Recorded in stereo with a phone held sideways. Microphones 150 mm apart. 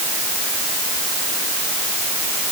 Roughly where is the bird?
No bird in this recording.